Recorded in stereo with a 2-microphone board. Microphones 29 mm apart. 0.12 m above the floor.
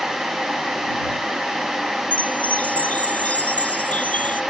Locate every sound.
2.1 s a chime: 50° left (ahead or behind)